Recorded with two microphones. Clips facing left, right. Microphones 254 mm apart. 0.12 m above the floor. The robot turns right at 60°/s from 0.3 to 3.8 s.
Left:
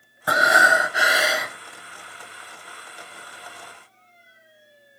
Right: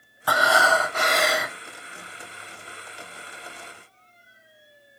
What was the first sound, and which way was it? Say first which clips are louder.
Breathing: even; 20° left (ahead or behind).